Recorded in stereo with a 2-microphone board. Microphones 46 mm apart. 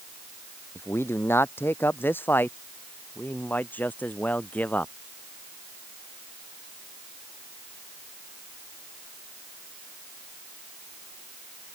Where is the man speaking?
60° left (ahead or behind); by 4.9 s 35° left (ahead or behind).